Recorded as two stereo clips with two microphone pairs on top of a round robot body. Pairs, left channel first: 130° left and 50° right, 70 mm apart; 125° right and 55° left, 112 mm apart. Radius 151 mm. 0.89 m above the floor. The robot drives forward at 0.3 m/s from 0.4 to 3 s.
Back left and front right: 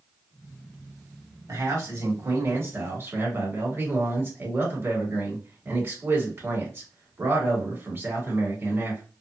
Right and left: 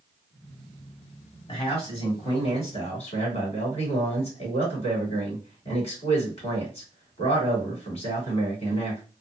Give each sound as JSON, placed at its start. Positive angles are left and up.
{"t": 1.5, "sound": "a man speaking", "azimuth_deg": -85, "distance_m": 1.7}